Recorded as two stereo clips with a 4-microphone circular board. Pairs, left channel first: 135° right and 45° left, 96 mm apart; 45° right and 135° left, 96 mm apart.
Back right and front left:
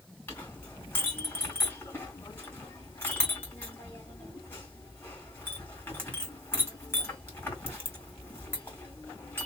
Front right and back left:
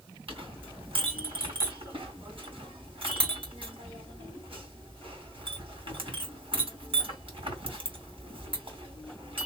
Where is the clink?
160° left, 2.5 m.